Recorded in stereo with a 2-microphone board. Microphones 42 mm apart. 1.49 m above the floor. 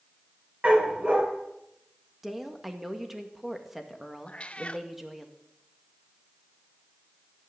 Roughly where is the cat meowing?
Left.